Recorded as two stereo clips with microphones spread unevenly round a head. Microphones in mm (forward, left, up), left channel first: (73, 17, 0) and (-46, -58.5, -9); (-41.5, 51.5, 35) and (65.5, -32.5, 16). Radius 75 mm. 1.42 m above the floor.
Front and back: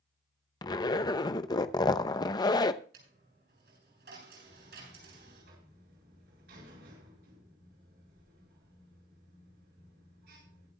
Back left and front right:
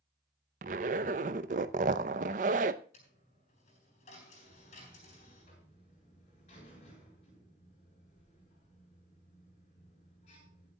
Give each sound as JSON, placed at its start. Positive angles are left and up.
{"t": 0.6, "sound": "a zipper", "azimuth_deg": -15, "distance_m": 0.8}
{"t": 2.9, "sound": "a dropped coin", "azimuth_deg": -175, "distance_m": 7.5}
{"t": 4.4, "sound": "a buzzer", "azimuth_deg": -170, "distance_m": 7.5}